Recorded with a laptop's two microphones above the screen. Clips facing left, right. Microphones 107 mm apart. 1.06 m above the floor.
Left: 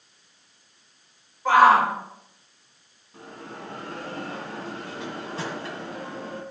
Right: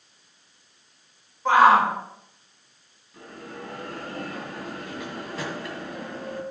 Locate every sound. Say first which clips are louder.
1.4 s a shout: even; 5° left (ahead or behind), 5.5 m
3.1 s a bell: even; 30° left (ahead or behind), 1.9 m